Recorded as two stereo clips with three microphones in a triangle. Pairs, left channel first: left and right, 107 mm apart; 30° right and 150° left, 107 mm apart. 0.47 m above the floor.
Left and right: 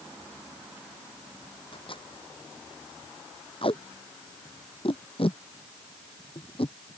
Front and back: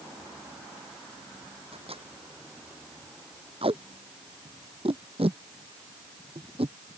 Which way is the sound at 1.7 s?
125° left.